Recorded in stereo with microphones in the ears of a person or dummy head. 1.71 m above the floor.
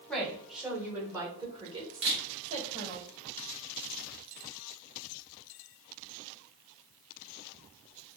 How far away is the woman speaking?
About 1.3 m.